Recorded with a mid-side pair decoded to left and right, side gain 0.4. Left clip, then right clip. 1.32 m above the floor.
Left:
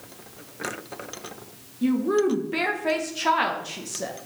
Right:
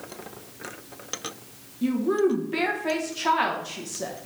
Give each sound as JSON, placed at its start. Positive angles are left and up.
{"t": 1.8, "sound": "a woman speaking", "azimuth_deg": 15, "distance_m": 0.9}